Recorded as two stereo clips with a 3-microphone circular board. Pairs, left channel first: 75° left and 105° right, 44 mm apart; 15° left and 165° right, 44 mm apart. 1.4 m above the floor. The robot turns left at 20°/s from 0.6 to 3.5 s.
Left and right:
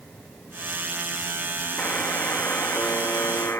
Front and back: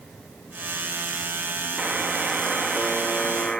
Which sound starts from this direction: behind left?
A buzzer, at 1.8 s.